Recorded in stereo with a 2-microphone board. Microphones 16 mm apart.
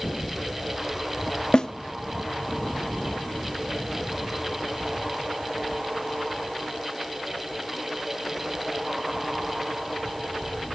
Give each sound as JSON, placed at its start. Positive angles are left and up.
{"t": 1.5, "sound": "a snare drum", "side_deg": 60, "distance_m": 0.9}